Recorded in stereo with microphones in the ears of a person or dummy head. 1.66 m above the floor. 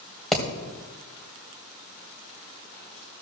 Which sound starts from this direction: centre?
Hammering, at 0.3 s.